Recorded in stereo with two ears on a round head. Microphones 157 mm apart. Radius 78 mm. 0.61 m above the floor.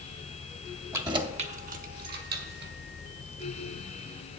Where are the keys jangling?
15° right (ahead or behind), 0.7 m; by 2.7 s 70° right (ahead or behind), 1.5 m.